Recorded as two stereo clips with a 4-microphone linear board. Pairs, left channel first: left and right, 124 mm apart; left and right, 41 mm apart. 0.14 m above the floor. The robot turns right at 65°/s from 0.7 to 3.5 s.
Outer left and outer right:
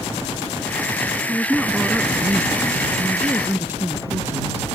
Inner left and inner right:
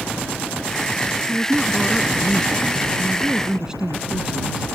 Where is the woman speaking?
5° left (ahead or behind); by 4.7 s 15° right (ahead or behind).